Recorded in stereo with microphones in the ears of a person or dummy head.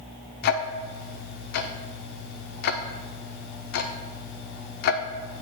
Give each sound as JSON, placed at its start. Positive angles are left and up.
{"t": 0.4, "sound": "ticking", "side_deg": 55, "distance_m": 0.5}